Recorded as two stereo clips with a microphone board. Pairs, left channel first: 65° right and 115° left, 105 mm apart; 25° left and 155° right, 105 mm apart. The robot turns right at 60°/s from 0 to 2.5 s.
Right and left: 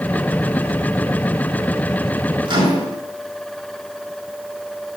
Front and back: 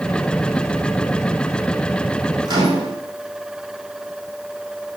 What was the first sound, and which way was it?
A microwave, 150° left.